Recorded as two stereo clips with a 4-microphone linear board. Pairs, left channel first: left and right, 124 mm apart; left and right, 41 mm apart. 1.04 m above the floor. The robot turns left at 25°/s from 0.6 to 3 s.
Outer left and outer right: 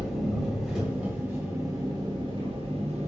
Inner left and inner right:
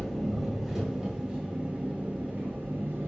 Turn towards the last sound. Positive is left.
turn(degrees=-60)